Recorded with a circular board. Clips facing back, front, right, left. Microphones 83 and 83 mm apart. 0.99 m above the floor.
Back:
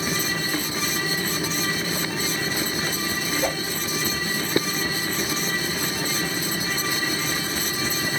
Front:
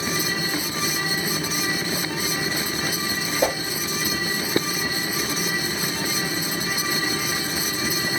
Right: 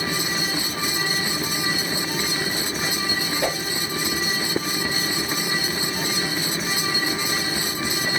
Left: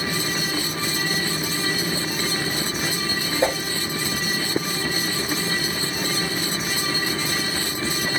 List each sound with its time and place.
3.4 s a whoosh: 25° left, 1.2 m